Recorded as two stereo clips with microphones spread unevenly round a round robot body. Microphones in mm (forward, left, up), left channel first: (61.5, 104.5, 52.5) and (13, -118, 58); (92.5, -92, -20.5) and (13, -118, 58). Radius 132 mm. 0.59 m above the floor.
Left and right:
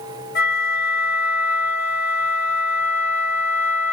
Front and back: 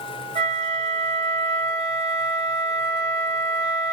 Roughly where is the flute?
Behind left.